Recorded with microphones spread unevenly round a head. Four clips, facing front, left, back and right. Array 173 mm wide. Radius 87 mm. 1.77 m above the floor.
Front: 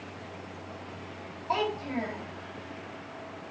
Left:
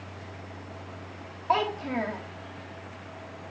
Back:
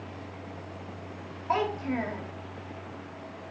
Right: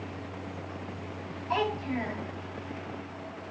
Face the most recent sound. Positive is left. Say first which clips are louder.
# left 3 dB, back 2 dB
turn(degrees=100)